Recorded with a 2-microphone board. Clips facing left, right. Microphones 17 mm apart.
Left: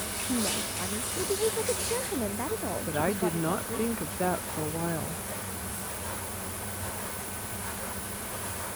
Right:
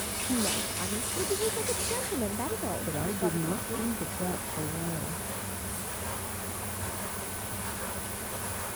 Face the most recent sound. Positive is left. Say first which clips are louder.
# left 4 dB
turn(degrees=85)